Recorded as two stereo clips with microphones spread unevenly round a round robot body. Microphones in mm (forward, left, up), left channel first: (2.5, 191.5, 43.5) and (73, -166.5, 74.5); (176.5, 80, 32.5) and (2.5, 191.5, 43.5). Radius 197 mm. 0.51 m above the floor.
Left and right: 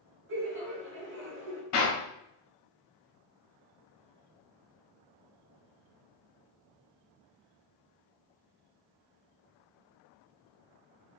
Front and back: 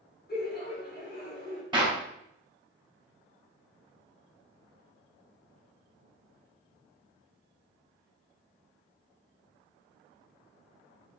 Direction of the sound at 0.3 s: 25° right.